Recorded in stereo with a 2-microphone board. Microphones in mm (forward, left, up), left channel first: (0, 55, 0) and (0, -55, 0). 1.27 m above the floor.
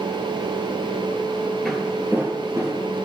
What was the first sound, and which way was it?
Footsteps, 5° left (ahead or behind).